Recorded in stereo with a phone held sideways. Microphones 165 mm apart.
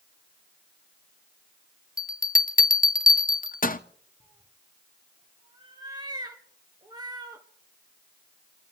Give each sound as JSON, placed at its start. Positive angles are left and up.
{"t": 2.0, "sound": "a bell", "side_deg": 55, "distance_m": 0.7}
{"t": 4.2, "sound": "a cat meowing", "side_deg": -25, "distance_m": 1.9}